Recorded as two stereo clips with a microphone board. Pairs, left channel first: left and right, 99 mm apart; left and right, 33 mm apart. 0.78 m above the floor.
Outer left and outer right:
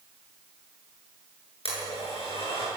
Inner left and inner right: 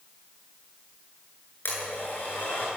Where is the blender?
65° left (ahead or behind), 9.5 m.